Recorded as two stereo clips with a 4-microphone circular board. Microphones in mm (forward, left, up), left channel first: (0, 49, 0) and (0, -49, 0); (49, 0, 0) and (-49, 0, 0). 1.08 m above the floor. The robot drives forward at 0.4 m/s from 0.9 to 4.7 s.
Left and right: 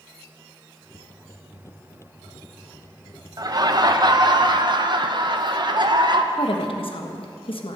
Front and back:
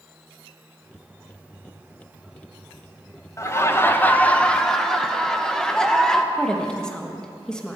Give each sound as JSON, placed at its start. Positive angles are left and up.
{"t": 3.4, "sound": "laughter", "azimuth_deg": -55, "distance_m": 1.3}
{"t": 6.3, "sound": "a woman speaking", "azimuth_deg": 80, "distance_m": 1.5}